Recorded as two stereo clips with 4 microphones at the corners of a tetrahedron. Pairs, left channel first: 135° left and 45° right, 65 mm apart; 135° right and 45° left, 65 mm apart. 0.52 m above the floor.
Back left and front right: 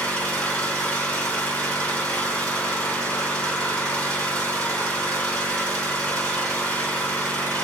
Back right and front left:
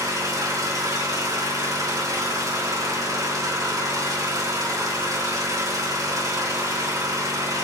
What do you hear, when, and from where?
0.0 s an engine running: 65° left, 2.5 m